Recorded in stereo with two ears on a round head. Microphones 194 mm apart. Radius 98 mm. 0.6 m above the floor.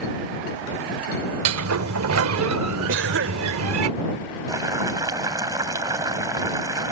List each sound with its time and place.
1.4 s a sliding door: 80° right
2.9 s a cough: 65° right (ahead or behind)
4.5 s boiling: 15° right (ahead or behind)